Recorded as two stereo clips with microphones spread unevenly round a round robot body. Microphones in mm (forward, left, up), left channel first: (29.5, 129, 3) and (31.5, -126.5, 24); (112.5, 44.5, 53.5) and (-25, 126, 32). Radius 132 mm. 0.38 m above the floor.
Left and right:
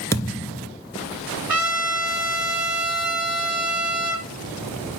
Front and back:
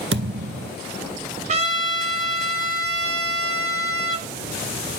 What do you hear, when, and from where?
0.1 s a thud: 170° left, 0.7 m
1.5 s a trumpet: 175° right, 2.0 m